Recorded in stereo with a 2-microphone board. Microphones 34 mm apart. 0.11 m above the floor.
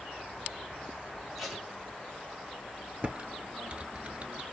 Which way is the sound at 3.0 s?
35° right (ahead or behind).